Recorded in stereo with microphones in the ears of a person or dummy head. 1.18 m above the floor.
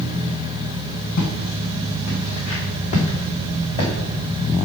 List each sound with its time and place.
1.2 s footsteps: 50° left (ahead or behind), 2.5 m; by 3.9 s 25° left (ahead or behind), 3 m